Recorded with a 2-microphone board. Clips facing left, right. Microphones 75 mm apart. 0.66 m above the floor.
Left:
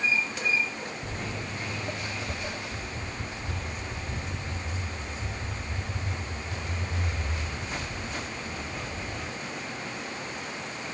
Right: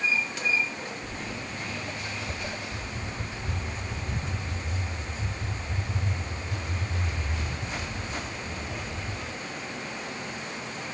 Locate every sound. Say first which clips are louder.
1.0 s footsteps: left 1 dB; 65° left (ahead or behind), 1.5 m; by 9.1 s 45° right (ahead or behind), 9.5 m